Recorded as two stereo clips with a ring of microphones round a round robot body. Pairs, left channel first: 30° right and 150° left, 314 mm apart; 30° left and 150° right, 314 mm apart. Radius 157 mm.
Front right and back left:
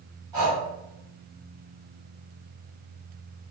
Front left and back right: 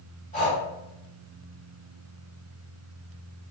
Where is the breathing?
80° left, 1.7 m.